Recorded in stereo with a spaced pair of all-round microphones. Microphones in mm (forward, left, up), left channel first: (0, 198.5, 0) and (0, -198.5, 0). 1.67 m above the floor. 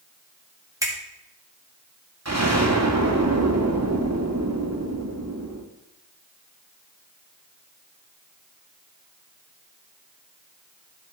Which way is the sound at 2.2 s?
40° right (ahead or behind).